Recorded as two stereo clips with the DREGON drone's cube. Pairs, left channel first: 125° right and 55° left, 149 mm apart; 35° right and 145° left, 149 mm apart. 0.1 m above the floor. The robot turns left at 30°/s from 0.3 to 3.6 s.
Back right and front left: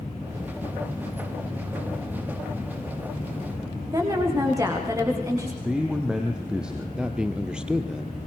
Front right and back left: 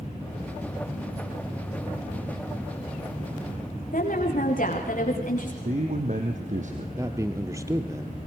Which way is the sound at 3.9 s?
10° right.